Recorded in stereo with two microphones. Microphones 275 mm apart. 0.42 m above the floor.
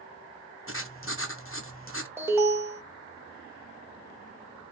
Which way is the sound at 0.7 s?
45° left (ahead or behind).